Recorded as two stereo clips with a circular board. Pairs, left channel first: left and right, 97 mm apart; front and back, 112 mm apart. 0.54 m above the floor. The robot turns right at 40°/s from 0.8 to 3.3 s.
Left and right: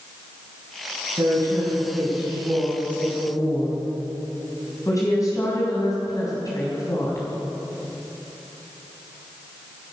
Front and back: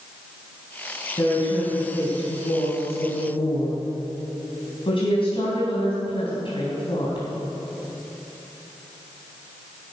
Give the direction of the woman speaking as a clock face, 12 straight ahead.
2 o'clock.